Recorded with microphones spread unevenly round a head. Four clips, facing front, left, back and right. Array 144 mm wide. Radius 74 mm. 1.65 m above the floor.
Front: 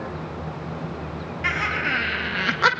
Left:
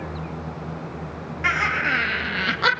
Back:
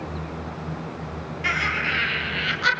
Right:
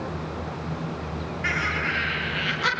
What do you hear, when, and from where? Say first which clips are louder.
1.4 s laughter: left 5 dB, even; 60° left, 2.5 m; by 2.7 s 30° left, 1.7 m